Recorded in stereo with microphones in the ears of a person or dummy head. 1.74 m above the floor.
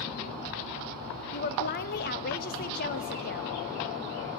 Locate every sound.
1.3 s a woman speaking: 50° left (ahead or behind), 1.0 m